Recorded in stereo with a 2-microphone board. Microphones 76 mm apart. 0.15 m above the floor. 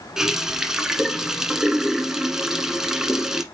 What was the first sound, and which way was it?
A running tap, 10° right (ahead or behind).